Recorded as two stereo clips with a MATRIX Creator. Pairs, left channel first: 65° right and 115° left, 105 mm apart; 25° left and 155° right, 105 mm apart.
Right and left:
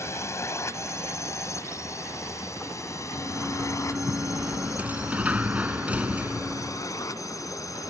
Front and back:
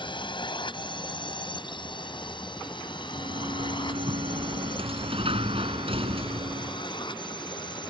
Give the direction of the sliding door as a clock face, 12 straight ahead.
6 o'clock.